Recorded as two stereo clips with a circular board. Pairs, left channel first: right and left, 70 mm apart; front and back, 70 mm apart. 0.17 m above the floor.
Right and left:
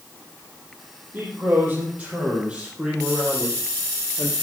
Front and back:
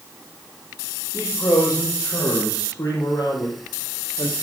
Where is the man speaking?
30° left, 7.5 m; by 4.3 s 5° right, 5.5 m.